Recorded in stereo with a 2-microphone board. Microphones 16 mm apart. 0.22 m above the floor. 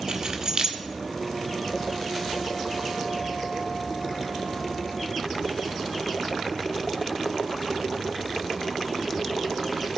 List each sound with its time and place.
0.1 s keys jangling: 50° right (ahead or behind), 1.9 m